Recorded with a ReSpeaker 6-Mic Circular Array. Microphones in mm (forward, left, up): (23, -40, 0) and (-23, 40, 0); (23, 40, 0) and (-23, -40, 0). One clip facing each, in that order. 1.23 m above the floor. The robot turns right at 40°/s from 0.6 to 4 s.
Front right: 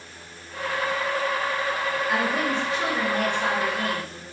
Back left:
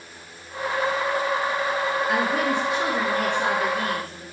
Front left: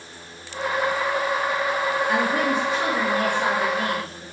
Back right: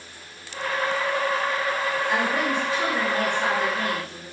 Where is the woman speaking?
90° left, 1.7 m; by 4.2 s 165° left, 1.7 m.